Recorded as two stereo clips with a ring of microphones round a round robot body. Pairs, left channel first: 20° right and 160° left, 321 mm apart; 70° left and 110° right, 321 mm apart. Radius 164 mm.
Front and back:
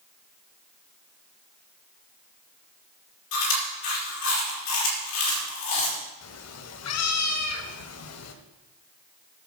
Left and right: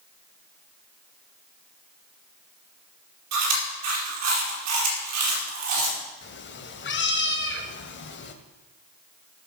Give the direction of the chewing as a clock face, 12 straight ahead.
2 o'clock.